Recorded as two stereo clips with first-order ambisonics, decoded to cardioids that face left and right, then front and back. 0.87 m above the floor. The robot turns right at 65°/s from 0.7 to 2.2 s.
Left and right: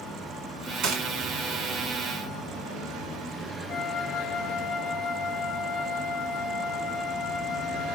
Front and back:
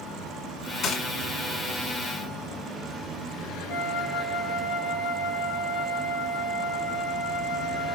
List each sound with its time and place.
0.8 s a gunshot: 55° right, 1.6 m; by 1.1 s 40° right, 1.6 m
3.7 s a flute: 40° left, 1.7 m